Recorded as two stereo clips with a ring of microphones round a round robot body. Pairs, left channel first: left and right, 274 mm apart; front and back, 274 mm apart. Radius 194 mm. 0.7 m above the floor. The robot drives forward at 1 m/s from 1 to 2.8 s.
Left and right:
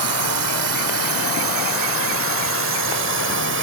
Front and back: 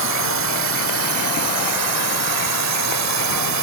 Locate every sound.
0.0 s a drone: 130° right; by 3.6 s 145° right